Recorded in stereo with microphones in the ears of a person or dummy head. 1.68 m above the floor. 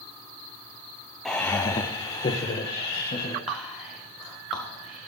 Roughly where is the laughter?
Centre.